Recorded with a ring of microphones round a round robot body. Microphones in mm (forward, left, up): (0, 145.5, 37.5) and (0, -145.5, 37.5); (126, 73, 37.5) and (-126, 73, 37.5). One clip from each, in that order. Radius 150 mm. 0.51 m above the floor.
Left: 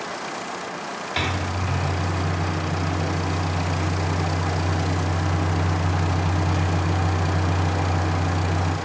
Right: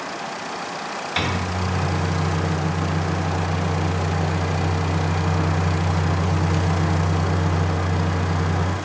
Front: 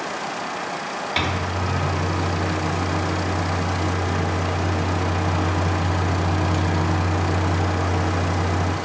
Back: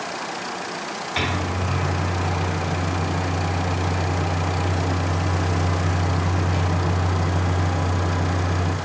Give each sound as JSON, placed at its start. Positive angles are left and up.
{"t": 1.2, "sound": "a microwave", "azimuth_deg": -25, "distance_m": 0.5}